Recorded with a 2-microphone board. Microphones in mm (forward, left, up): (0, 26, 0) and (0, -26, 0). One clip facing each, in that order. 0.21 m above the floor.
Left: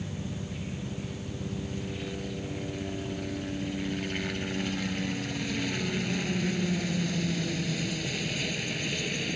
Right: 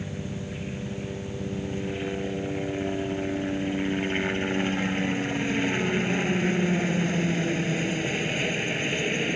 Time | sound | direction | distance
0.0 | a helicopter | 30° right (ahead or behind) | ?